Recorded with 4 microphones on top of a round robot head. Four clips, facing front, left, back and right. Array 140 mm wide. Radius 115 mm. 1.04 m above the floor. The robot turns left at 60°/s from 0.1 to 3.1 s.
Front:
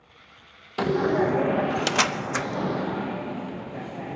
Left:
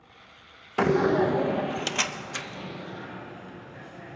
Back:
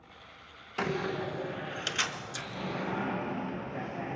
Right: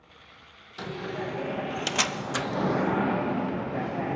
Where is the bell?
I don't hear a bell.